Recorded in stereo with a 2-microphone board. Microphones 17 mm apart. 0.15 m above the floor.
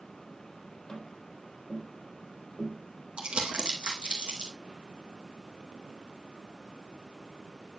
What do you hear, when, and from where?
0.9 s tapping: 55° left (ahead or behind), 4 m
3.2 s crumpling: 75° right (ahead or behind), 2.5 m